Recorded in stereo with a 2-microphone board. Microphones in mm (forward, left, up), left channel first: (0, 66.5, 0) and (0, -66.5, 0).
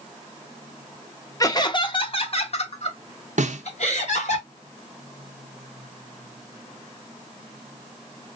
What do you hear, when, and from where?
1.4 s laughter: 25° left (ahead or behind), 0.7 m; by 4.4 s 60° left (ahead or behind), 2 m
3.4 s a snare drum: 70° right (ahead or behind), 0.6 m